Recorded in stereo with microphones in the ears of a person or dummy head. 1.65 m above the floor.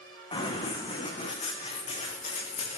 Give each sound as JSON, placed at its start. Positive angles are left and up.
{"t": 0.3, "sound": "running footsteps", "side_deg": 25, "distance_m": 5.5}